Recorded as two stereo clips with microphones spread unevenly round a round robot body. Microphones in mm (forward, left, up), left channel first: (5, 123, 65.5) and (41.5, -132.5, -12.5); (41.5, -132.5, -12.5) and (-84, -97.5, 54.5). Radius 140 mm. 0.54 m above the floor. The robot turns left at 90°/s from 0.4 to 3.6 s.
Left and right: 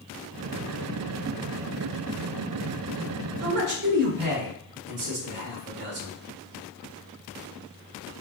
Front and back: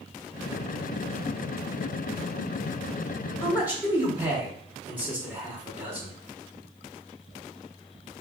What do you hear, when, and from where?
3.4 s a man speaking: 85° right, 1.8 m; by 6.2 s 100° right, 1.8 m